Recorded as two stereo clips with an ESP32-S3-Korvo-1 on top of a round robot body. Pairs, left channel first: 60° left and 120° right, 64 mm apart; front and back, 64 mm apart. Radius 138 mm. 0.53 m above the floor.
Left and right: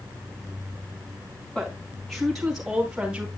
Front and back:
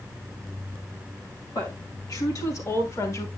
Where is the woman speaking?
20° right, 4.5 m; by 3.3 s 40° right, 4.5 m.